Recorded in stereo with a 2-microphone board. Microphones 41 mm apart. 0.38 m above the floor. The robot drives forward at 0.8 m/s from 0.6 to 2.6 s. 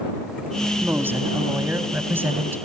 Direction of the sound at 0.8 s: 65° right (ahead or behind).